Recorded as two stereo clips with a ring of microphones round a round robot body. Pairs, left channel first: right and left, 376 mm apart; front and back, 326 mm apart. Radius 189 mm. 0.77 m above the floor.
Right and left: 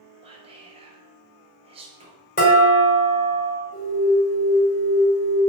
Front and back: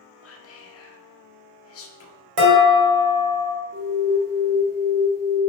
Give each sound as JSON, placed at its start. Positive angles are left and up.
{"t": 0.2, "sound": "whispering", "azimuth_deg": 20, "distance_m": 0.6}
{"t": 2.4, "sound": "dishes clattering", "azimuth_deg": -160, "distance_m": 1.5}
{"t": 3.7, "sound": "an alarm", "azimuth_deg": -120, "distance_m": 1.8}